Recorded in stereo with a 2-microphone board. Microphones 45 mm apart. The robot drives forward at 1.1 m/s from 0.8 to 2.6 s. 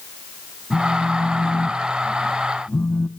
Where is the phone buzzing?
30° left (ahead or behind), 1.6 m; by 3.1 s 55° left (ahead or behind), 1.0 m.